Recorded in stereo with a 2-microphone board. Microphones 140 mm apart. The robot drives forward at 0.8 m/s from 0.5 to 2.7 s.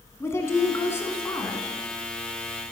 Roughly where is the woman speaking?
Centre.